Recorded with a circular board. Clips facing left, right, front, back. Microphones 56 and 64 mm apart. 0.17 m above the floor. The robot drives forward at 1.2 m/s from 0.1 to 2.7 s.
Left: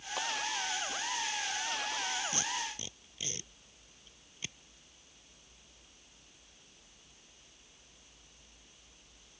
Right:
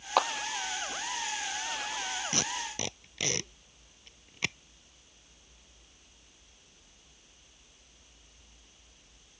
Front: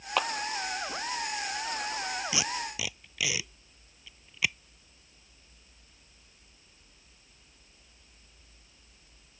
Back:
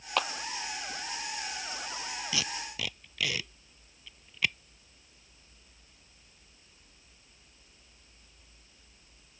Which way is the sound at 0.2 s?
85° right.